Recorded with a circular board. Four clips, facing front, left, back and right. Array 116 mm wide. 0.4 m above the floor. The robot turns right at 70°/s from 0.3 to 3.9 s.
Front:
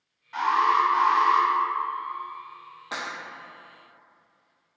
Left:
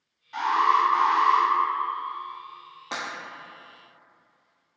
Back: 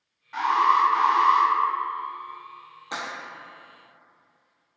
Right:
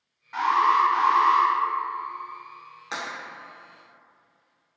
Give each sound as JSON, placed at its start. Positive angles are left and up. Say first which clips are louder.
{"t": 0.3, "sound": "an alarm", "louder": "right 1 dB, back 1 dB", "azimuth_deg": -100, "distance_m": 1.2}
{"t": 2.9, "sound": "breaking glass", "louder": "even, back 1 dB", "azimuth_deg": 80, "distance_m": 1.1}